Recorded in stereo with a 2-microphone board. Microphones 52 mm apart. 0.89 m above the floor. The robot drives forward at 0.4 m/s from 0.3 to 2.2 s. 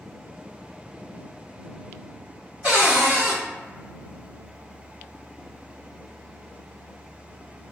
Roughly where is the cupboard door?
Right.